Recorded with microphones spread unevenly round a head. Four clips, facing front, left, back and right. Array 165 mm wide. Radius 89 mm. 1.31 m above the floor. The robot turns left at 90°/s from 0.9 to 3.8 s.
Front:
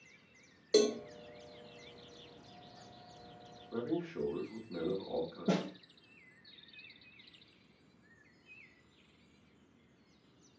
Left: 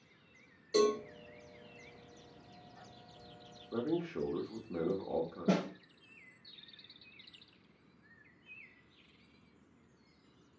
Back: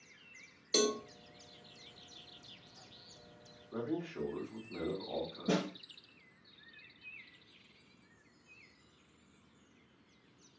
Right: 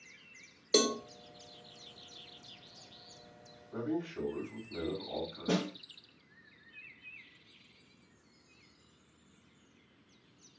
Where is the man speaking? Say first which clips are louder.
Left 1 dB, front 2 dB; 95° left, 1.1 m; by 5.5 s 85° left, 1.1 m.